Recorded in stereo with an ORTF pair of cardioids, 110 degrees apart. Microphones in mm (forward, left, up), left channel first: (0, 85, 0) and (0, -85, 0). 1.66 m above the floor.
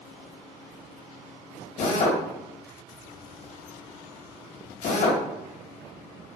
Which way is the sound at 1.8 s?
55° left.